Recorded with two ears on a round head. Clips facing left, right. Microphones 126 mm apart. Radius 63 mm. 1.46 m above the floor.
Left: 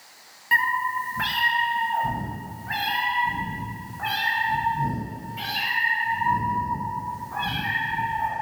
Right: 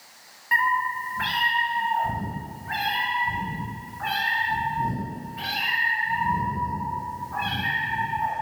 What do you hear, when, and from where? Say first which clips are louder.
0.5 s a cat meowing: right 1 dB; 30° left (ahead or behind), 0.7 m; by 8.3 s 75° left (ahead or behind), 5 m